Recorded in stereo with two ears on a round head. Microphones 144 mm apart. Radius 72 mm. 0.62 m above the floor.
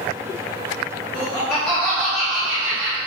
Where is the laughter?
10° left (ahead or behind), 1.3 m; by 3.0 s 15° right (ahead or behind), 2 m.